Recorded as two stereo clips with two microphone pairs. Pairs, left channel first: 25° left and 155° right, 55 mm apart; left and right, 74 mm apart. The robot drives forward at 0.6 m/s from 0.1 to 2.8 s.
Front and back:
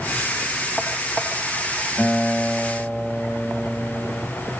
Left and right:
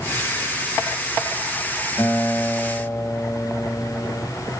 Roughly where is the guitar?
Left.